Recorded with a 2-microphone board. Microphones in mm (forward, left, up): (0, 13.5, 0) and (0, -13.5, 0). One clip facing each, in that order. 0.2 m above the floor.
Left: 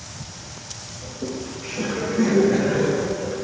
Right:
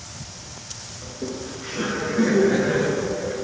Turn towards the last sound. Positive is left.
turn(degrees=-60)  # may be behind; listen again after turning